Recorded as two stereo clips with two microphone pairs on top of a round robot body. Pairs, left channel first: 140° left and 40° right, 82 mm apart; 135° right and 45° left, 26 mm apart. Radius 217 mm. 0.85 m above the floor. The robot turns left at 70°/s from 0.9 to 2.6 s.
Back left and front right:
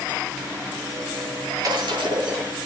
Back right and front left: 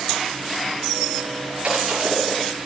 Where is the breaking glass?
5° left, 8.5 m; by 2.5 s 55° right, 8.5 m.